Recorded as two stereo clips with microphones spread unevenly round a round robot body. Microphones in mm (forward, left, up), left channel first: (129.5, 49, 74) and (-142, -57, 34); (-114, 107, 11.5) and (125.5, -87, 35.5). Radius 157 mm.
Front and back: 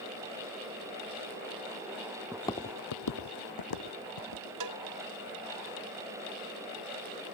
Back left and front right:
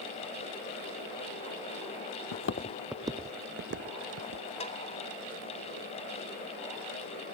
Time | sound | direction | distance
2.3 | footsteps | 110° left | ?
4.6 | a cowbell | 150° right | ?